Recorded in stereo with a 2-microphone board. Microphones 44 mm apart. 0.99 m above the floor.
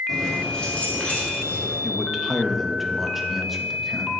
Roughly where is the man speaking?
Centre.